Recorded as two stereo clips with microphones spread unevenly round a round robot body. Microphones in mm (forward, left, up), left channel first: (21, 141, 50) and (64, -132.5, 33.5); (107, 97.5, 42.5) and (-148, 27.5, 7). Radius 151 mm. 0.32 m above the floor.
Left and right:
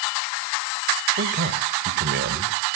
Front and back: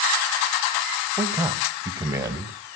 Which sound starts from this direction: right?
A man speaking, at 1.2 s.